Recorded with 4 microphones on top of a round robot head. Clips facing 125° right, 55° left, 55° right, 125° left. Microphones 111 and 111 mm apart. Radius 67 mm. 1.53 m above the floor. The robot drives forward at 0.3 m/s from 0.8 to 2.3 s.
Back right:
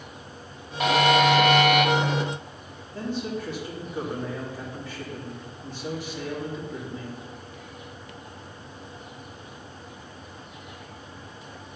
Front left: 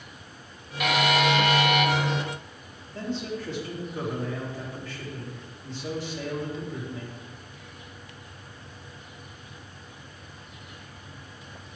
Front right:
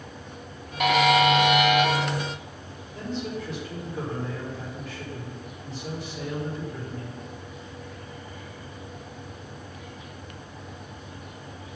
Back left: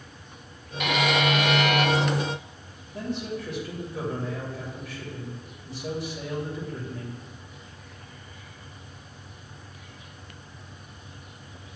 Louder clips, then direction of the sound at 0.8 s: Back right 4 dB, front right 5 dB; 80° right.